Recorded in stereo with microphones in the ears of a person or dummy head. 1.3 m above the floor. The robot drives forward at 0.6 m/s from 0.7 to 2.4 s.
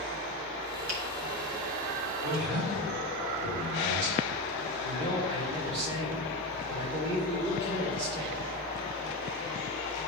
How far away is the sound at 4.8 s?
About 2.5 m.